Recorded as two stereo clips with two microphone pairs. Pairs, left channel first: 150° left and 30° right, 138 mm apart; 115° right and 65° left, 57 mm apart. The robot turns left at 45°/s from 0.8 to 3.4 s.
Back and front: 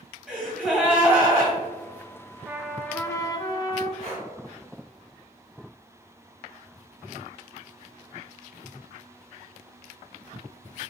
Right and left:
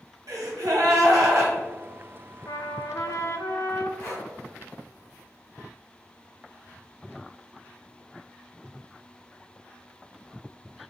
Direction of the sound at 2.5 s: 110° right.